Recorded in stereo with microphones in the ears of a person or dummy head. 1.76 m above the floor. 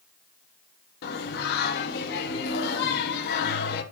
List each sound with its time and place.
1.0 s singing: 60° left (ahead or behind), 1.3 m